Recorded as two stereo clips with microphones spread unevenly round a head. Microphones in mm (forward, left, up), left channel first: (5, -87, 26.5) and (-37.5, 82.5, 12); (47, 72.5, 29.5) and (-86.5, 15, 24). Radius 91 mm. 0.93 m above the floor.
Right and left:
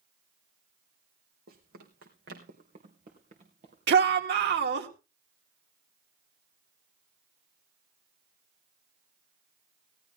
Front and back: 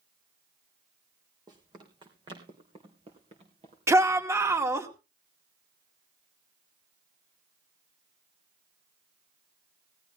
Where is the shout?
130° left, 2 m.